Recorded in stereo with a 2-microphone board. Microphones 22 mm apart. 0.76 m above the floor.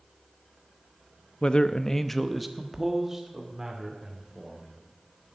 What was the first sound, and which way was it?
A man speaking, 45° left (ahead or behind).